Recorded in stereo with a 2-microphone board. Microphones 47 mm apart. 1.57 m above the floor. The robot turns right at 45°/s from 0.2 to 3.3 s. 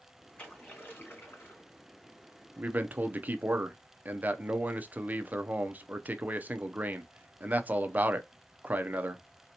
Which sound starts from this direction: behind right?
A man speaking, at 2.6 s.